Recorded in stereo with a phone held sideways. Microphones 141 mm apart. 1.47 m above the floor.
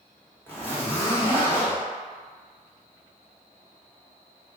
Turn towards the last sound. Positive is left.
turn(degrees=15)  # may be behind; listen again after turning